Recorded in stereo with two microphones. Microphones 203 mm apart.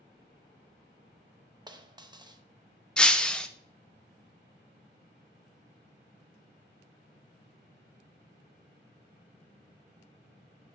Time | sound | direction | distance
1.7 | a dropped coin | 20° right (ahead or behind) | 0.6 m
3.0 | breaking glass | 5° left (ahead or behind) | 0.5 m